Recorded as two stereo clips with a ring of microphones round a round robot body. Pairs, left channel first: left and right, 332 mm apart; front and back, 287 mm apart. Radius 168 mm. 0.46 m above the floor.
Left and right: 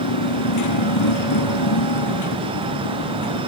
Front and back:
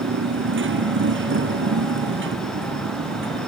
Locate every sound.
0.0 s a motorcycle: 130° left